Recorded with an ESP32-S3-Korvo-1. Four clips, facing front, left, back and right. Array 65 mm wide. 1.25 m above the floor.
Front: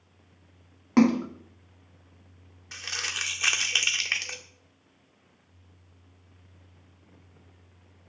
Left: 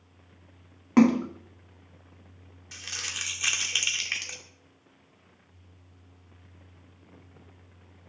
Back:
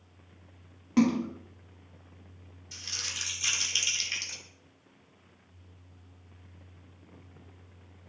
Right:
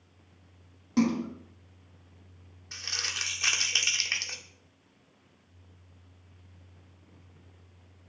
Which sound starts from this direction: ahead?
Crumpling, at 2.7 s.